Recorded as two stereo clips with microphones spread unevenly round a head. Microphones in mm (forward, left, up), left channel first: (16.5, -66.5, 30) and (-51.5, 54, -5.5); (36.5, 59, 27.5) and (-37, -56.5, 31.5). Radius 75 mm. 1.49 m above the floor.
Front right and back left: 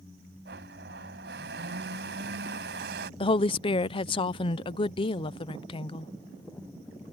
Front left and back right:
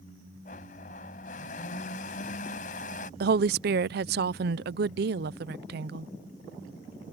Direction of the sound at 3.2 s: 115° right.